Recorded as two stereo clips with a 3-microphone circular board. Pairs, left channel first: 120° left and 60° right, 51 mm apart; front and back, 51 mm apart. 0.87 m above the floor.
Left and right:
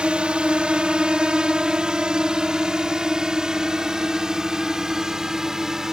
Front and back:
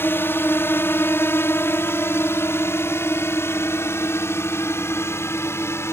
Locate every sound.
0.0 s a drone: 5° left; by 5.9 s 20° left